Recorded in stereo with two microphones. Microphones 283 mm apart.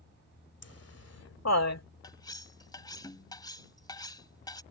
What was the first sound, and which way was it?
Laughter, 55° left (ahead or behind).